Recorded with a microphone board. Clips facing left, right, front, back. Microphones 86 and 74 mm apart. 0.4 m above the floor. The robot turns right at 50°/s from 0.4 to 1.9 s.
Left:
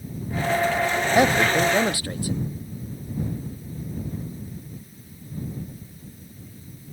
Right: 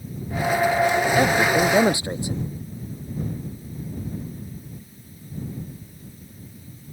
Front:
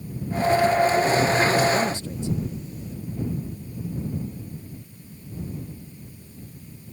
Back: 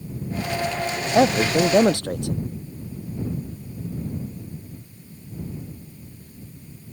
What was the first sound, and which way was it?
A man speaking, 165° left.